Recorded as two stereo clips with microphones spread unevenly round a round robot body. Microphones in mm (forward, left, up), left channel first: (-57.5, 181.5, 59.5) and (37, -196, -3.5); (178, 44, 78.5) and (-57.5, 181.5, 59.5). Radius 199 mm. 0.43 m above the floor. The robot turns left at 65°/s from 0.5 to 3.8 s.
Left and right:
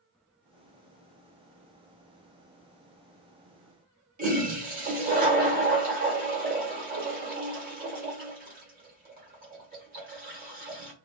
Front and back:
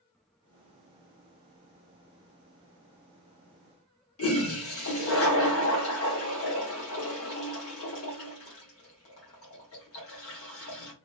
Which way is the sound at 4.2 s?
25° right.